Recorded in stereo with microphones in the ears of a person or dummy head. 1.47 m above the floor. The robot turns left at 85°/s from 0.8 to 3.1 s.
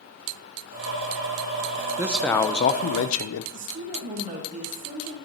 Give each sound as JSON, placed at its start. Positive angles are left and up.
{"t": 2.0, "sound": "a man speaking", "azimuth_deg": -170, "distance_m": 0.7}
{"t": 3.5, "sound": "a woman speaking", "side_deg": -35, "distance_m": 1.7}